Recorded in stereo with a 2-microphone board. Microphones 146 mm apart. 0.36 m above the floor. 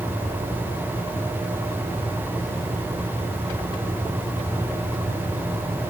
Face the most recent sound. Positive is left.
No sound to turn to.